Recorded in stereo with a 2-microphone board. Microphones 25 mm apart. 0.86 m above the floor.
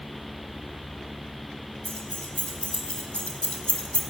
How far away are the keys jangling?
About 3.5 m.